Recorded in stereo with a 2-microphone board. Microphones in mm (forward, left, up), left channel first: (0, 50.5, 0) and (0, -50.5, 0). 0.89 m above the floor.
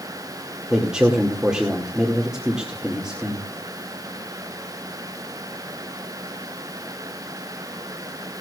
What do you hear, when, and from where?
0.7 s a man speaking: 5° right (ahead or behind), 2 m